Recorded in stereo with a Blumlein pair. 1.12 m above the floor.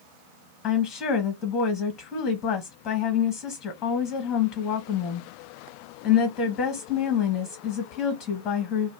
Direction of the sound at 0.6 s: 30° left.